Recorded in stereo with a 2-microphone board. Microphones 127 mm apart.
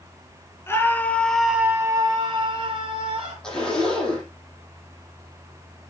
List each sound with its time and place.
0.7 s a scream: 20° left (ahead or behind), 2 m; by 3.3 s 45° right (ahead or behind), 3 m
3.4 s a zipper: 5° left (ahead or behind), 7.5 m